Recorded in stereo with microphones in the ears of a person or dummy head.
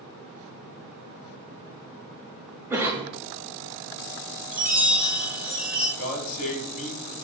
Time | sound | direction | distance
2.7 | a cough | 15° right (ahead or behind) | 0.7 m
4.5 | a chime | 5° right (ahead or behind) | 1.6 m
6.0 | a man speaking | 40° left (ahead or behind) | 1.2 m